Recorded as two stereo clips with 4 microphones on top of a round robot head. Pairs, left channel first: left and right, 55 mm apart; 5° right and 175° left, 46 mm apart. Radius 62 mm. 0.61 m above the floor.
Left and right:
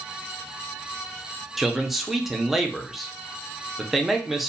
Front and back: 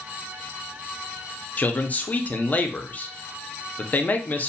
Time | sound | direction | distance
1.6 | a man speaking | 5° right | 0.6 m